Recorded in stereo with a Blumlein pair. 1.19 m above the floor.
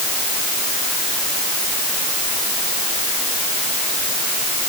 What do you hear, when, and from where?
Only background noise.